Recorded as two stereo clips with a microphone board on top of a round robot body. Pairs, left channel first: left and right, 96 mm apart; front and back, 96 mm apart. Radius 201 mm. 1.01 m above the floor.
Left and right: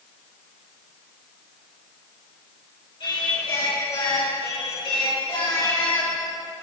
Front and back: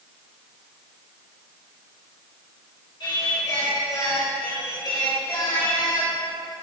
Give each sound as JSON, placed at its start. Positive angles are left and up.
{"t": 3.0, "sound": "singing", "azimuth_deg": 45, "distance_m": 3.5}